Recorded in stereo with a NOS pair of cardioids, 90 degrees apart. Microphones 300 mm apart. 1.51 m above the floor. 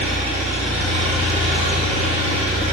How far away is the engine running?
About 0.9 m.